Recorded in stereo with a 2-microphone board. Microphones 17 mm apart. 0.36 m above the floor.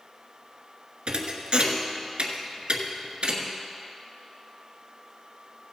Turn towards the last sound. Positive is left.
turn(degrees=-85)